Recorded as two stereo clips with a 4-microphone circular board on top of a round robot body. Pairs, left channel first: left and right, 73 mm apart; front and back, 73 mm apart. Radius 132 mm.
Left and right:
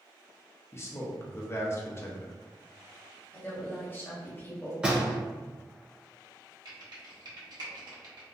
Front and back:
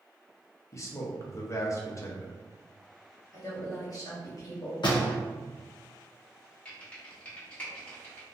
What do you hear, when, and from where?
0.7 s a man speaking: 40° left, 0.7 m
3.3 s a woman speaking: 30° left, 1.1 m
4.8 s a door slam: 15° right, 0.7 m
6.7 s typing on a keyboard: 70° right, 1.0 m